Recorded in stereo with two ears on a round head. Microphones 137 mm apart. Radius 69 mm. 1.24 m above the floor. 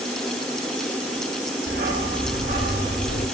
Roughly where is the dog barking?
Right.